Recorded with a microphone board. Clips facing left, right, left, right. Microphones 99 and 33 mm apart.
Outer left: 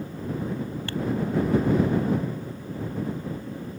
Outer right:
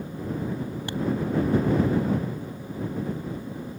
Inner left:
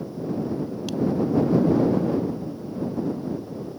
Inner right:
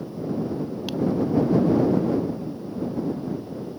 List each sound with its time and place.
0.9 s tapping: 20° right (ahead or behind)